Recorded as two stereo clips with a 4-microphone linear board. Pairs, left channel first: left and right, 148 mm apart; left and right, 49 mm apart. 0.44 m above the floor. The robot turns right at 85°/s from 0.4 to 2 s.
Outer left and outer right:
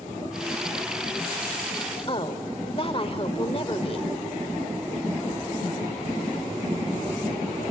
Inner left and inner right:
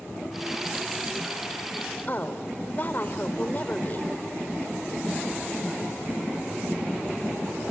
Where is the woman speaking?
40° left (ahead or behind), 1.0 m.